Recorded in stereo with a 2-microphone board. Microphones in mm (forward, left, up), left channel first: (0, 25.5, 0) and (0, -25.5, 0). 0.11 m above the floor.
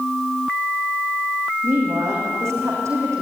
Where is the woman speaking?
65° right (ahead or behind), 6.5 m.